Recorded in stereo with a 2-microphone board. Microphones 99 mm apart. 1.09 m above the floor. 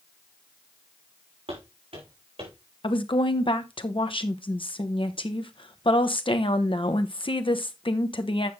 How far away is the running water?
No running water in this recording.